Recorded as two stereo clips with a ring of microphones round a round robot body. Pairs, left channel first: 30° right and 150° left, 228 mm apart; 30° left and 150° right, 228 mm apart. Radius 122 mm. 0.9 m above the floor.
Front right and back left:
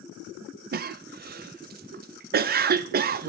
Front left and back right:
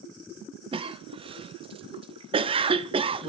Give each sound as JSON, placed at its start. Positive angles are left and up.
{"t": 0.7, "sound": "a cough", "azimuth_deg": 155, "distance_m": 0.5}